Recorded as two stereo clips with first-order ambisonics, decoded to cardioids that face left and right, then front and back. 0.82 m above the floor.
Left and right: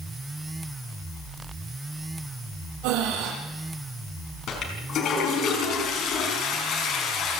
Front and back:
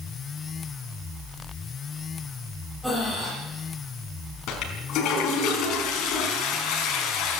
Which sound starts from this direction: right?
Breathing, at 2.8 s.